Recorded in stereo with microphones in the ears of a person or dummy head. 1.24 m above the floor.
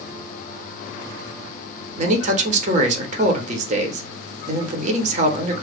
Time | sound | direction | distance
2.0 | a man speaking | 40° right (ahead or behind) | 0.8 m